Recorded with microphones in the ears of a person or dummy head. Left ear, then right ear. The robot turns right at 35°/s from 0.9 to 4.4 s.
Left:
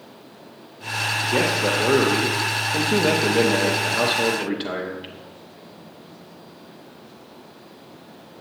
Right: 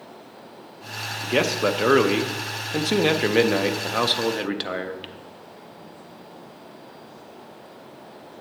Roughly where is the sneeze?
No sneeze in this recording.